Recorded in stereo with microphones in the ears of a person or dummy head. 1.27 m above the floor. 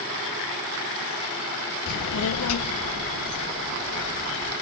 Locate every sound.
1.9 s a child speaking: 60° left (ahead or behind), 0.5 m; by 4.5 s 75° left (ahead or behind), 2.0 m